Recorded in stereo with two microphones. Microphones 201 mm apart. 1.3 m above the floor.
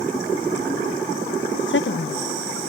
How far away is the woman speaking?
About 0.5 m.